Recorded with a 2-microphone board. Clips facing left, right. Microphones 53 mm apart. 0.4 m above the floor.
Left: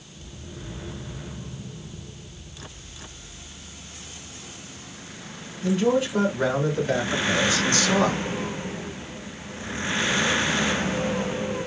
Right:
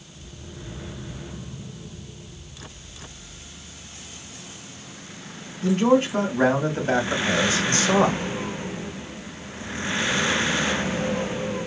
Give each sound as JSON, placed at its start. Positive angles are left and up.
{"t": 5.6, "sound": "a man speaking", "side_deg": -55, "distance_m": 3.0}